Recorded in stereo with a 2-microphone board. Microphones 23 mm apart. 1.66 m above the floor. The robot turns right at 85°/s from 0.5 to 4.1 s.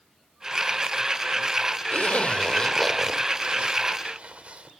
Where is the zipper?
65° left (ahead or behind), 2.5 m; by 4.7 s 60° right (ahead or behind), 2.5 m.